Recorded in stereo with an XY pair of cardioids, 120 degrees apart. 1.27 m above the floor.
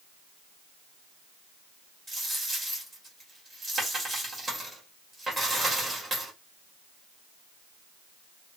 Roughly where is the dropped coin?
Ahead right.